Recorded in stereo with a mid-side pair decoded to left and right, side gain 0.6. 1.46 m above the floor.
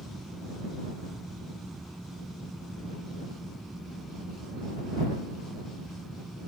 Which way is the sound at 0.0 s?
5° right.